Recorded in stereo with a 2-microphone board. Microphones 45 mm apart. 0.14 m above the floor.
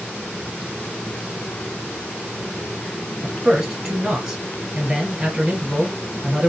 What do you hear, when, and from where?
3.2 s a man speaking: 20° right (ahead or behind), 2.5 m